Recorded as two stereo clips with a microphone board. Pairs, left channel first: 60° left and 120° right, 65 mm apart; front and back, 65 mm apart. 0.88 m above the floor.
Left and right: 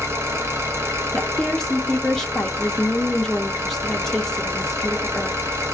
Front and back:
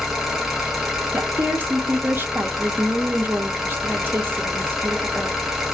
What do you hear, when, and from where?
0.0 s an engine running: 100° right, 0.7 m
1.1 s a woman speaking: 140° left, 0.5 m